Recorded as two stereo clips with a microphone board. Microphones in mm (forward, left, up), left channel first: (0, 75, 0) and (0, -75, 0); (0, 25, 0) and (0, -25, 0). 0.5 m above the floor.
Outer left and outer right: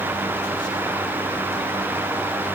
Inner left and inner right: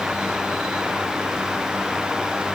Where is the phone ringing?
No phone ringing in this recording.